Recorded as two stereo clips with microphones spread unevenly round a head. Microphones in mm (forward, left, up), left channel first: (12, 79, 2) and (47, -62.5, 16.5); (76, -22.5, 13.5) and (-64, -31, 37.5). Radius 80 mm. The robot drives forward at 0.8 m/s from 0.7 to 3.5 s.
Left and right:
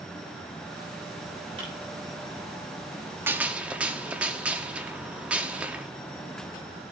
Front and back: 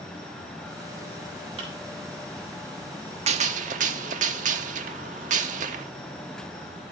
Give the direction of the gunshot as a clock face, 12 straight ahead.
5 o'clock.